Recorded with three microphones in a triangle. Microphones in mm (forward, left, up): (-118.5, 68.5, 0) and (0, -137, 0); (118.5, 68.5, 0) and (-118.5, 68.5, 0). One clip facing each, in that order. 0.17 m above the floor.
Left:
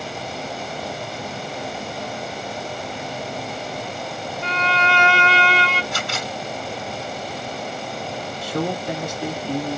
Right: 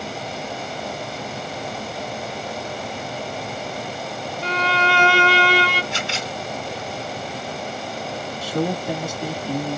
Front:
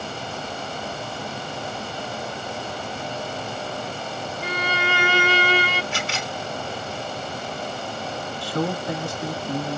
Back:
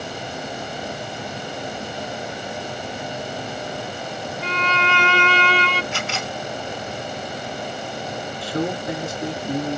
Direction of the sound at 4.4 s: 75° right.